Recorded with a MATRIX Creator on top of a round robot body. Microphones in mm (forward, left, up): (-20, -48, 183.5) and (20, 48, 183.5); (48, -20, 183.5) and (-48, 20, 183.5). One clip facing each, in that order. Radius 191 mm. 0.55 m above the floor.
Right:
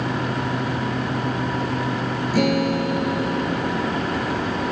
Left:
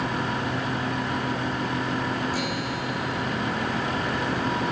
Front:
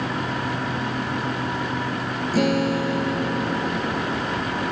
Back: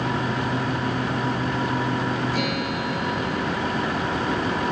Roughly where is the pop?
No pop in this recording.